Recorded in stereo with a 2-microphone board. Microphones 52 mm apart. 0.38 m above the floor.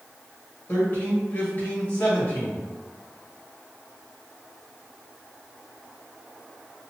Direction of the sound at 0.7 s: 45° left (ahead or behind).